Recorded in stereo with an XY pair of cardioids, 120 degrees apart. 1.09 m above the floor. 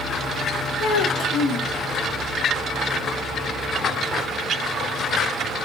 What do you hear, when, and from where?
0.8 s a child speaking: 65° left, 2 m